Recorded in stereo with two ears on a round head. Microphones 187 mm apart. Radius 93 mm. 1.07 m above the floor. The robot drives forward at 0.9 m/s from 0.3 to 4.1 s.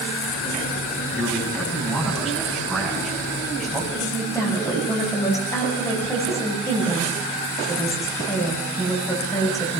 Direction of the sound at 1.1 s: Centre (ahead or behind).